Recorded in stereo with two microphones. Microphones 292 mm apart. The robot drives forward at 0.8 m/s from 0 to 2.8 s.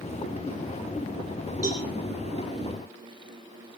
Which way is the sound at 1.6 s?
55° right (ahead or behind).